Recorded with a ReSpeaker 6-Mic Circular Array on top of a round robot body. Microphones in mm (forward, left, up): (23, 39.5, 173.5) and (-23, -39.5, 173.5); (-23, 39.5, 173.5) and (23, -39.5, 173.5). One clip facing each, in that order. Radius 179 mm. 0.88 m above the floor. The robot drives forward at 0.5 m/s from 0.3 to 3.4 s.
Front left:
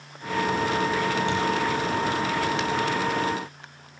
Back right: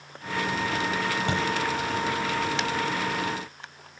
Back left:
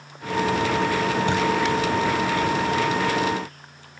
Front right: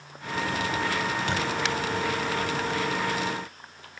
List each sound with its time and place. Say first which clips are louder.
1.3 s a thud: front left 2 dB, back left 6 dB; 165° right, 8 m